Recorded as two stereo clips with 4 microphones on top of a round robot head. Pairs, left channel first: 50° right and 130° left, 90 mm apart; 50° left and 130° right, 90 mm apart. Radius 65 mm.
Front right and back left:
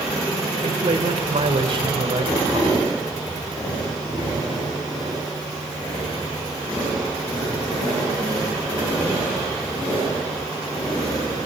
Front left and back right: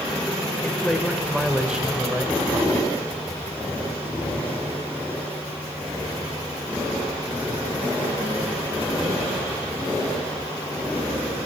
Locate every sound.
0.6 s a man speaking: 130° left, 2.5 m; by 2.9 s 165° left, 3 m